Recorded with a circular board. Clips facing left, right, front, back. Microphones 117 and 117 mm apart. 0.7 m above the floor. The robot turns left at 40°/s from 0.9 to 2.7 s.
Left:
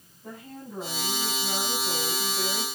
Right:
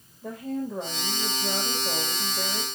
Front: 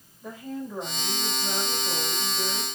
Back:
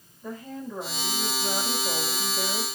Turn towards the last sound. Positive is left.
turn(degrees=-160)